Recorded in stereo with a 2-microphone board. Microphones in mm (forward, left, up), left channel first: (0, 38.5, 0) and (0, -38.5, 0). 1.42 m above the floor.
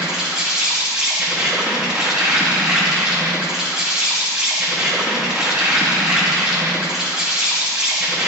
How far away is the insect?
About 1.3 m.